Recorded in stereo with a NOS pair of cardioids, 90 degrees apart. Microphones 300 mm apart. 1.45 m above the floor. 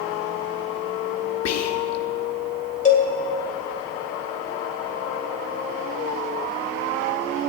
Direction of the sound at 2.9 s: 25° left.